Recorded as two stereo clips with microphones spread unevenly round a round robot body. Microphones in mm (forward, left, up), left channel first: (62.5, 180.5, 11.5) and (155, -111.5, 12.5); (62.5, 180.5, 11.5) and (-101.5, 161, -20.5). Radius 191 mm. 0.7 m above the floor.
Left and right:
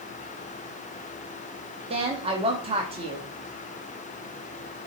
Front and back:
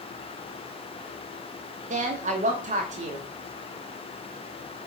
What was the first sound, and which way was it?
A woman speaking, 145° right.